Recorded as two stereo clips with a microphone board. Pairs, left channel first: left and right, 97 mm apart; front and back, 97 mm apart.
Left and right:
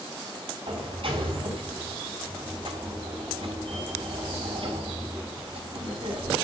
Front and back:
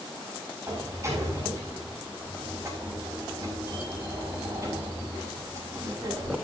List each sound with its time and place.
0.7 s a sliding door: 120° right, 5.5 m